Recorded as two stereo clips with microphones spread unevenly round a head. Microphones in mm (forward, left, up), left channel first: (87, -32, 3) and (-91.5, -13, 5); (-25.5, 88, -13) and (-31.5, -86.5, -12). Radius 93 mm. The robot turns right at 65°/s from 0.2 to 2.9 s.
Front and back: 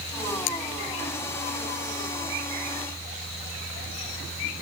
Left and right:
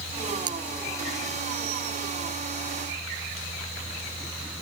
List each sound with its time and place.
0.5 s cutlery clinking: 25° right; by 0.6 s 15° right